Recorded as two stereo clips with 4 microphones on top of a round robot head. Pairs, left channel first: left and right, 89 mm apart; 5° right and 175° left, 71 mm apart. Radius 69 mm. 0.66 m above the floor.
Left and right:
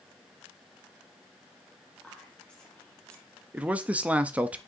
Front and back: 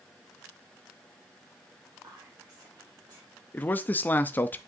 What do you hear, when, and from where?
2.0 s whispering: 165° left, 1.7 m
3.5 s a man speaking: 30° right, 0.5 m